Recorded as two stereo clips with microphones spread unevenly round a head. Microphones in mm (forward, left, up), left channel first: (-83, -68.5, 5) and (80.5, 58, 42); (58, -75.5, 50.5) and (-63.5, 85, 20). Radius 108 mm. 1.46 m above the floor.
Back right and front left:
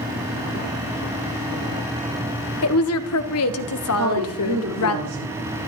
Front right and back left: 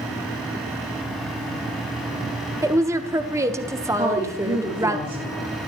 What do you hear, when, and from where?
2.6 s a woman speaking: 155° right, 1.3 m
4.0 s a woman speaking: 60° left, 5.5 m